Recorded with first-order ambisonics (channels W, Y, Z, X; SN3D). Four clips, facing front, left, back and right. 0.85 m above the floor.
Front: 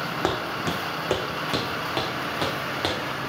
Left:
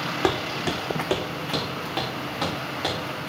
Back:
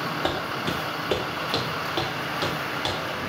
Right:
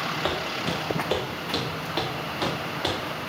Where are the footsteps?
50° left, 1.7 m; by 3.3 s 10° left, 3.5 m.